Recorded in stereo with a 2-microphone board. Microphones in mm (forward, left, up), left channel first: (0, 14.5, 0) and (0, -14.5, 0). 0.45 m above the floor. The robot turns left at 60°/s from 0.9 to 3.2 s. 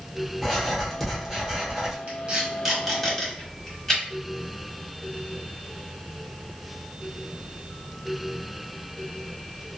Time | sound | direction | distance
0.4 | writing | centre (ahead or behind) | 0.9 m
2.1 | tape being pulled | 50° right (ahead or behind) | 1.1 m